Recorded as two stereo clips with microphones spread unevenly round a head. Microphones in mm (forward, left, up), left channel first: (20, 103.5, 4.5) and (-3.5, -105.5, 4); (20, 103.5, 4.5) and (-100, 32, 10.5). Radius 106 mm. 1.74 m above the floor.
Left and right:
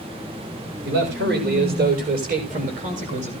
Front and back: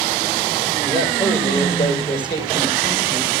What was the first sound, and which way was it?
A man speaking, 55° right.